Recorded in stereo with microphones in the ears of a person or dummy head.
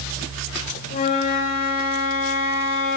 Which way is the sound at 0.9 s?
50° left (ahead or behind).